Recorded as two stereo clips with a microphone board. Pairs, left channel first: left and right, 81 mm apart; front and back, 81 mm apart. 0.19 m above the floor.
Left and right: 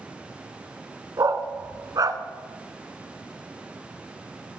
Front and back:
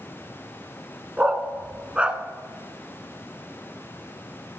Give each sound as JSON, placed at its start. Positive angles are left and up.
{"t": 1.2, "sound": "a dog barking", "azimuth_deg": -110, "distance_m": 0.9}